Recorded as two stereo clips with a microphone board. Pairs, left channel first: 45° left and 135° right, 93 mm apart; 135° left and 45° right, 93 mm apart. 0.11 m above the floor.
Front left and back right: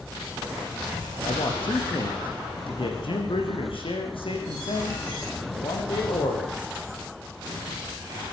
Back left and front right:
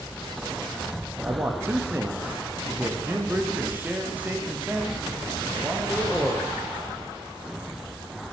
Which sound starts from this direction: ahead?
A man speaking, at 1.2 s.